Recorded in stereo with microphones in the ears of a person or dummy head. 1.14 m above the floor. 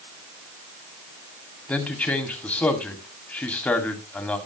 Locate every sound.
1.7 s a man speaking: 10° left (ahead or behind), 2 m